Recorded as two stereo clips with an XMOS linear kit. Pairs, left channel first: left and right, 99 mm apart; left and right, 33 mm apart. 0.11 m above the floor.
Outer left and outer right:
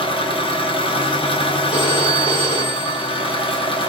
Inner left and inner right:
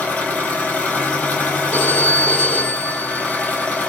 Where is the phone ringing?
60° left (ahead or behind), 2 m.